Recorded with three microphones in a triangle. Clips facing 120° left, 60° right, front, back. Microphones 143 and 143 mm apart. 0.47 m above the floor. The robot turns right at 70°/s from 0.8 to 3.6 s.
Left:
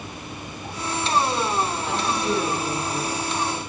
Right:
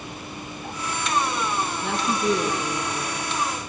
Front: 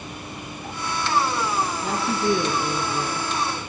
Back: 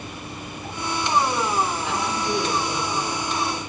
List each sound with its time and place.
1.8 s a woman speaking: 45° right, 5 m; by 3.3 s 55° left, 5 m